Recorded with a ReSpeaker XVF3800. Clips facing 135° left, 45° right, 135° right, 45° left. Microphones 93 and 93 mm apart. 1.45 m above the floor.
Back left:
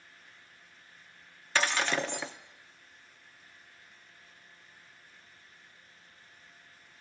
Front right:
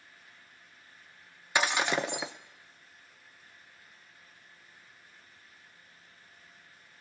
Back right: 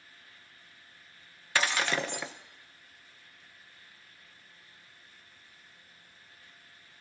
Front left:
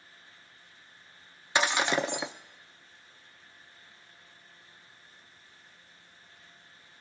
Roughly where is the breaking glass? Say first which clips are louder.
Front right 1 dB, front left 3 dB; ahead.